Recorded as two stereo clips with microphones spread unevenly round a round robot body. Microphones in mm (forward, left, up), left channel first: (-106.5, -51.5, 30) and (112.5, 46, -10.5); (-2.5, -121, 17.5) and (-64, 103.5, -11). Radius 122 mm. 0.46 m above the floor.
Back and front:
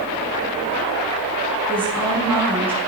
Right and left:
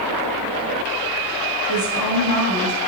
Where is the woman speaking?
70° right, 6 m.